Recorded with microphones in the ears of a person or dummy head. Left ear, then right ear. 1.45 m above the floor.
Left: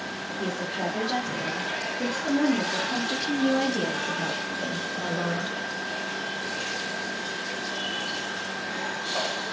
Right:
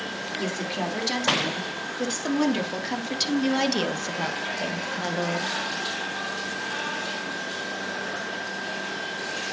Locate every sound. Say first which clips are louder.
0.4 s a woman speaking: left 1 dB; 65° right (ahead or behind), 4 m; by 5.5 s 10° right (ahead or behind), 1.7 m